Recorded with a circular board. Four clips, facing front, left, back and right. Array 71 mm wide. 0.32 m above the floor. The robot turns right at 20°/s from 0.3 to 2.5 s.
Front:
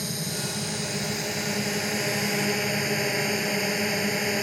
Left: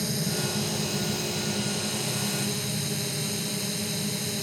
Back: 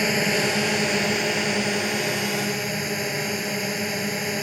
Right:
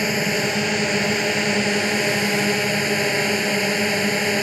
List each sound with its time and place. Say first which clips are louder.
0.0 s a drone: right 9 dB, back 11 dB; 130° right; by 4.4 s 85° right